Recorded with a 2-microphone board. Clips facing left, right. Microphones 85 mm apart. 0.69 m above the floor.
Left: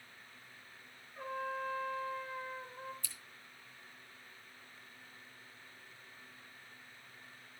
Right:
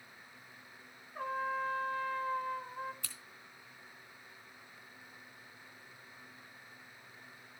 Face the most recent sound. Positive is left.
turn(degrees=-70)  # may be behind; listen again after turning